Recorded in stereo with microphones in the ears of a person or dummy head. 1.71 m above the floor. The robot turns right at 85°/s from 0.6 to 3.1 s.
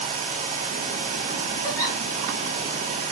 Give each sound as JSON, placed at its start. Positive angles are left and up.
{"t": 1.6, "sound": "a giggle", "side_deg": 35, "distance_m": 2.5}